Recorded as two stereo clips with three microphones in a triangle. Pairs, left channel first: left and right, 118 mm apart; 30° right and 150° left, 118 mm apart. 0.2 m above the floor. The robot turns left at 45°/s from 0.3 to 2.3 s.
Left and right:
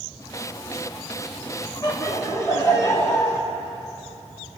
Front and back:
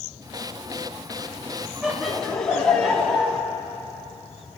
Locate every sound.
1.8 s laughter: 75° left, 1.4 m; by 3.4 s 50° left, 1.4 m